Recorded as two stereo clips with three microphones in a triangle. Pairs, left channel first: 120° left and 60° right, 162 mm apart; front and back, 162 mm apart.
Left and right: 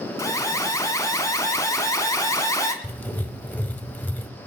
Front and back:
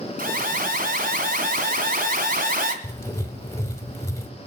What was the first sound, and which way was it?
An alarm, 175° right.